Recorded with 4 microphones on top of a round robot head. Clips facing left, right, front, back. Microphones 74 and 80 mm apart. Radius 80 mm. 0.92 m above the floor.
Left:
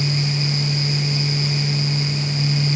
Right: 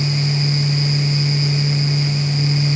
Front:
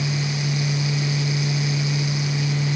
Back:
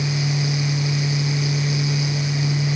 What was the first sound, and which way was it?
Only background noise.